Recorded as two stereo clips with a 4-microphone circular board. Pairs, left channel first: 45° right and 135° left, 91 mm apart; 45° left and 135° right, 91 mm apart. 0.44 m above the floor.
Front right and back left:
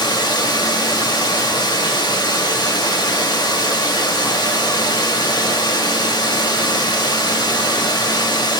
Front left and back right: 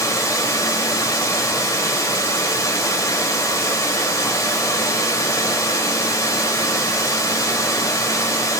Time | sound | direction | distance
0.0 | running water | 10° right | 0.7 m